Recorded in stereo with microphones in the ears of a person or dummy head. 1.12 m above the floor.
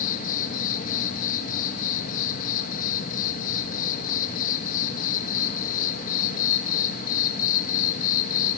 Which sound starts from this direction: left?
An insect, at 0.0 s.